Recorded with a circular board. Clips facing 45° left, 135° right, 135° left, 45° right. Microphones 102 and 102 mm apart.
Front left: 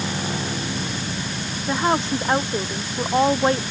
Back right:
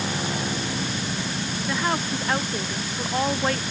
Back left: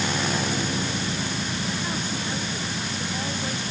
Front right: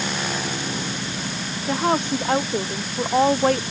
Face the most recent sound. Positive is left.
turn(degrees=-20)